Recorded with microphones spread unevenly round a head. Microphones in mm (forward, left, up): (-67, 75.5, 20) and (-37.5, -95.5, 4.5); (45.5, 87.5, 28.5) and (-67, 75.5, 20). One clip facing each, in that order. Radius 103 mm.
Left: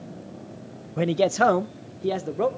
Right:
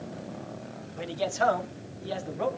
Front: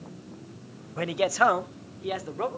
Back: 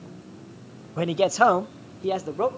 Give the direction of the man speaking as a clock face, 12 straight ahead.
8 o'clock.